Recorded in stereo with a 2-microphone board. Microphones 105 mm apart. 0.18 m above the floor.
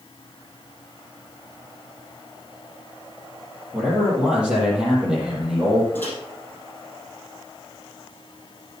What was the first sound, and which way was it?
A man speaking, 10° right (ahead or behind).